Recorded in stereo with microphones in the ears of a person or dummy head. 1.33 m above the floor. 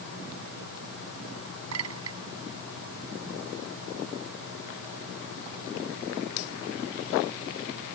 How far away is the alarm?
I don't hear an alarm.